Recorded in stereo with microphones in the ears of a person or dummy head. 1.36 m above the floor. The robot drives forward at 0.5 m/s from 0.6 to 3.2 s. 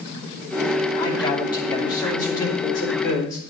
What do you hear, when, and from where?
1.0 s a man speaking: 25° left (ahead or behind), 3 m; by 3.5 s 20° left (ahead or behind), 4 m